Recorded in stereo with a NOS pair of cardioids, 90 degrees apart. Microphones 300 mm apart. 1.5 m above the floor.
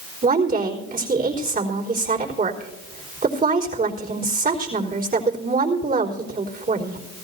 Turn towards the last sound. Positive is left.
turn(degrees=-30)